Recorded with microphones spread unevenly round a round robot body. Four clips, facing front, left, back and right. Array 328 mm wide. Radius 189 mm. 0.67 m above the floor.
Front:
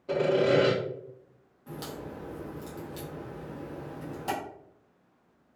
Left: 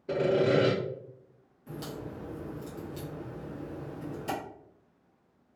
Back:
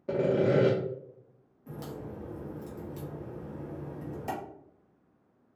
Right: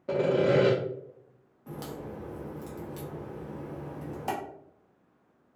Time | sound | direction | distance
0.1 | sawing | straight behind | 0.7 m
1.7 | a crack | 100° right | 0.8 m